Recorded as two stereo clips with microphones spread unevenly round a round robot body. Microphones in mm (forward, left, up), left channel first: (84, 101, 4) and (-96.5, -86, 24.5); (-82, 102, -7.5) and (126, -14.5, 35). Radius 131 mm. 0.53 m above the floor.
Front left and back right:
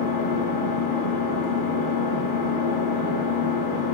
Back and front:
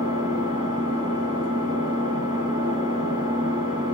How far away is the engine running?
About 5 m.